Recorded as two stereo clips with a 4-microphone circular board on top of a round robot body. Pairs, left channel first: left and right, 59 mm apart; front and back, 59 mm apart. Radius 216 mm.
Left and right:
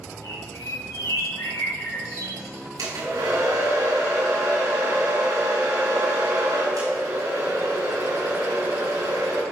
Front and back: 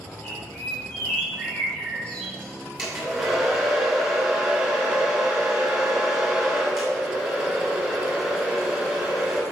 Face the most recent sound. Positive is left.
turn(degrees=-90)